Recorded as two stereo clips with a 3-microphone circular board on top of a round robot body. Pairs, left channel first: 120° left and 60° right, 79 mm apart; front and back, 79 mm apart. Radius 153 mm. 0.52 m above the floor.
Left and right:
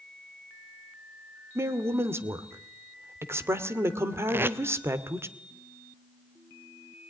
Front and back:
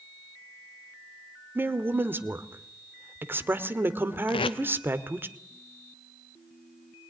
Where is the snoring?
No snoring in this recording.